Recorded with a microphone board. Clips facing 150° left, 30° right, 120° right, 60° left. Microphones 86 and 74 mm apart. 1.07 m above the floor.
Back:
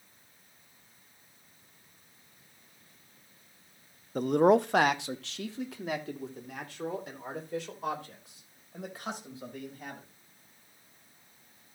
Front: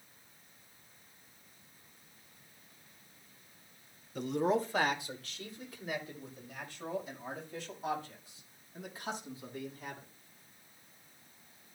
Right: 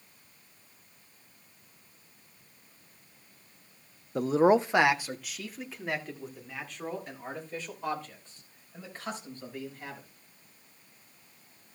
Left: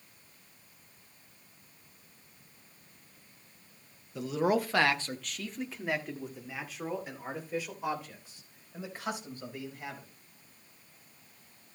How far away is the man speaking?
About 0.6 m.